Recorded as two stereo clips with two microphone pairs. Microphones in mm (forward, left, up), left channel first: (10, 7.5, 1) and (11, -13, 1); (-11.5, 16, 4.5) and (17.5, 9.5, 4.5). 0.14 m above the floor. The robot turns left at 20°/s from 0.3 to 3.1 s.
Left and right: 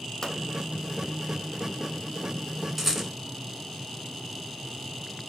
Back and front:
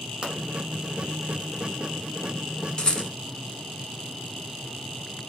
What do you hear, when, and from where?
0.2 s a pop: 40° left, 1.0 m
2.8 s a rattle: 160° right, 1.0 m; by 3.1 s 170° right, 1.0 m